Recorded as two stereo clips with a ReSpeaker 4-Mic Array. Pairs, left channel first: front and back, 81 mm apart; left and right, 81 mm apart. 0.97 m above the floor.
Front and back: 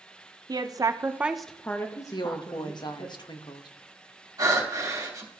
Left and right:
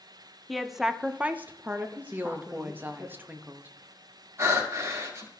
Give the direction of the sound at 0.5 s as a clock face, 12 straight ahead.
6 o'clock.